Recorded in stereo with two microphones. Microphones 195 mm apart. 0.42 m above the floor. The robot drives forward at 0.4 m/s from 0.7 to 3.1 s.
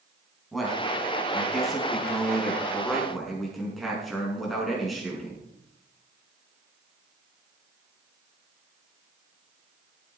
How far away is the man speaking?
About 3.5 m.